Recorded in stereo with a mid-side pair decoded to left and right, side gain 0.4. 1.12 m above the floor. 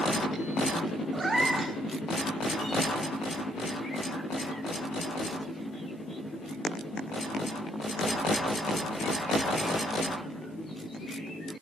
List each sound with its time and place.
1.1 s a cat meowing: 25° right, 2 m